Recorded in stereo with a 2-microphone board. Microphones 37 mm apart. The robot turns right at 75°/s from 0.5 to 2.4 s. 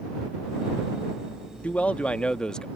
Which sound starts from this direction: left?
A man speaking, at 1.6 s.